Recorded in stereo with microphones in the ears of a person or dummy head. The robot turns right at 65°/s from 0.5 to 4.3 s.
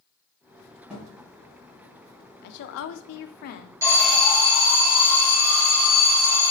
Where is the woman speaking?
60° left, 0.5 m; by 3.7 s 140° left, 0.5 m.